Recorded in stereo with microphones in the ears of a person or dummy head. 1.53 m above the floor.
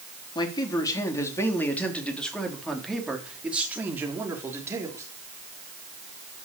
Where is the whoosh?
No whoosh in this recording.